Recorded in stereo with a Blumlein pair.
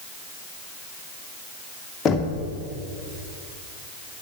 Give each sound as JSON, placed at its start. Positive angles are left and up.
{"t": 2.0, "sound": "knocking", "azimuth_deg": 25, "distance_m": 1.1}